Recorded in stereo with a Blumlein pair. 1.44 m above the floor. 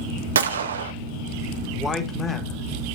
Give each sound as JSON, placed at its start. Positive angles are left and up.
{"t": 0.3, "sound": "a gunshot", "azimuth_deg": -65, "distance_m": 0.7}
{"t": 1.8, "sound": "a man speaking", "azimuth_deg": 20, "distance_m": 1.4}